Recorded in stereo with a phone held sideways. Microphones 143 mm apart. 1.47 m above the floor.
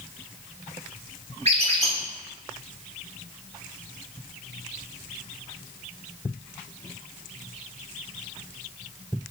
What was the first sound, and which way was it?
A squeak, 50° right (ahead or behind).